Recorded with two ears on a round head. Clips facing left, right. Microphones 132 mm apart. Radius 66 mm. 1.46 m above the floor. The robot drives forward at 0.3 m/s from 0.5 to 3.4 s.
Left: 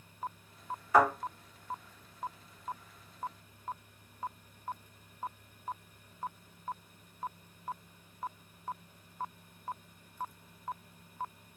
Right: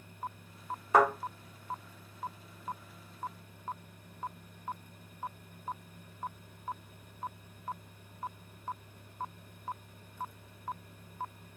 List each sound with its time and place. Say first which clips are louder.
0.9 s a thud: even; 20° right (ahead or behind), 1.3 m